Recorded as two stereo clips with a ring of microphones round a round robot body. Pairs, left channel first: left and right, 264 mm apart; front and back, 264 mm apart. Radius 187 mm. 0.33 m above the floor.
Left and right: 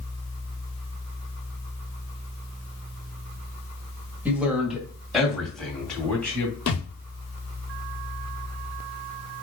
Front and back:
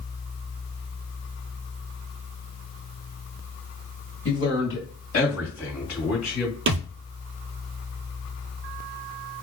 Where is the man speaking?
10° right, 1.8 m; by 6.6 s 5° left, 3 m.